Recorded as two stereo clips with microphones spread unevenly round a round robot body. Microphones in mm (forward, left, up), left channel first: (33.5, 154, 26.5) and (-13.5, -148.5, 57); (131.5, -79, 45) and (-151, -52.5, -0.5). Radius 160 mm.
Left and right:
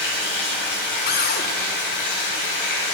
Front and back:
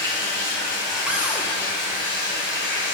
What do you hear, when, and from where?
0.0 s running water: 85° left, 3.5 m
1.1 s a cupboard door: 100° left, 0.9 m